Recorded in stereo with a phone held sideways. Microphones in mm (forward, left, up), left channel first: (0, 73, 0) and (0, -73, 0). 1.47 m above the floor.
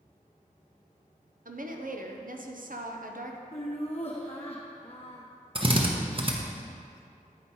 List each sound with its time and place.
1.4 s a woman speaking: 70° right (ahead or behind), 0.7 m
3.5 s laughter: 45° left (ahead or behind), 0.8 m
5.5 s a drill: 35° right (ahead or behind), 0.8 m